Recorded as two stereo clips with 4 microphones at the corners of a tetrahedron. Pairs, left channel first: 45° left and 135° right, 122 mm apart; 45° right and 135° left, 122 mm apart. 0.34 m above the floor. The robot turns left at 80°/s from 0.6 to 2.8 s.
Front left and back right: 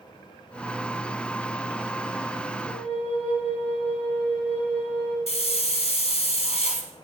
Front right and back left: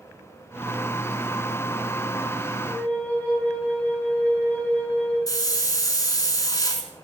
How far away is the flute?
About 5 m.